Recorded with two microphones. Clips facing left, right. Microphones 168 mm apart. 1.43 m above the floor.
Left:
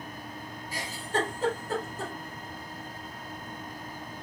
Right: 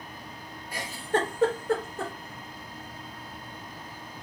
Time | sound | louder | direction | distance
0.7 | a giggle | right 3 dB | 60° right (ahead or behind) | 1.0 m